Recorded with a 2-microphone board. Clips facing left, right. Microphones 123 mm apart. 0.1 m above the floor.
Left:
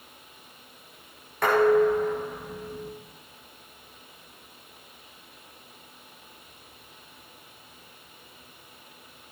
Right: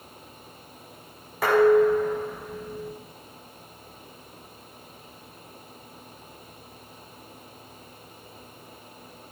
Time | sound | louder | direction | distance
1.4 | dishes clattering | right 2 dB | 5° right (ahead or behind) | 5 m